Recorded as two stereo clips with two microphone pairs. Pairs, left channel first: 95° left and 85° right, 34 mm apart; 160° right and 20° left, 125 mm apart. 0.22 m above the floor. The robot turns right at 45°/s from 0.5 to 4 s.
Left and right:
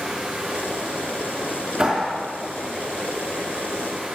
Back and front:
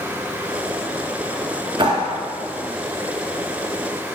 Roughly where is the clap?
Ahead right.